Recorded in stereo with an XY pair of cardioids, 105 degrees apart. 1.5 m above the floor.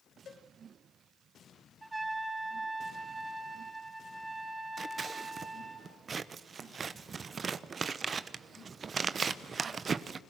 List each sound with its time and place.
0.2 s a cowbell: 55° left, 3 m
1.8 s a trumpet: 15° right, 2.5 m
4.8 s scissors: 40° right, 0.9 m